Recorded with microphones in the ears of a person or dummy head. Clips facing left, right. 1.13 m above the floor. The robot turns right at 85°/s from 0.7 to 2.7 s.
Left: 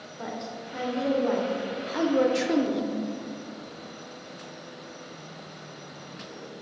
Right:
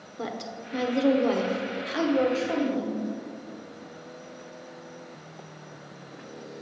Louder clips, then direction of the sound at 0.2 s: Right 1 dB; 120° right.